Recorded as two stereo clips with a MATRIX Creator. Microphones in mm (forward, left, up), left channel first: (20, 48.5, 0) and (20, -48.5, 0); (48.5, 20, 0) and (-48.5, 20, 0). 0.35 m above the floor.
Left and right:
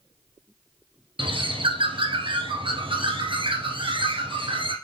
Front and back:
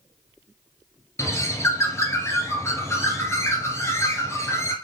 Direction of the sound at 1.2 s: 60° right.